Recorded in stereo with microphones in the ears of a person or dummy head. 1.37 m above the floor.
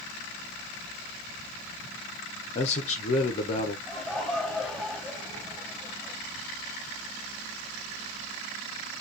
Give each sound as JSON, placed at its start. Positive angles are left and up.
{"t": 2.5, "sound": "a man speaking", "side_deg": 35, "distance_m": 0.8}
{"t": 3.9, "sound": "laughter", "side_deg": 0, "distance_m": 3.0}